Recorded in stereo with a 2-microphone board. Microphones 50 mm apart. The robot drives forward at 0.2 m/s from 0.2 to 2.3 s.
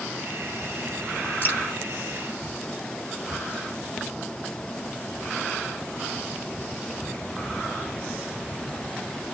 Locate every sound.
1.4 s dripping: 40° left (ahead or behind), 2 m